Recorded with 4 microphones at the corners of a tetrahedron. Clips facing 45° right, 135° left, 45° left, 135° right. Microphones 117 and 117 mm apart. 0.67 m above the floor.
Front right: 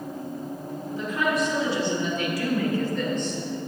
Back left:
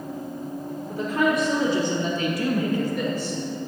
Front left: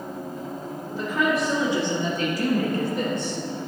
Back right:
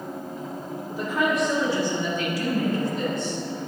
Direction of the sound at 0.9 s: 150° left.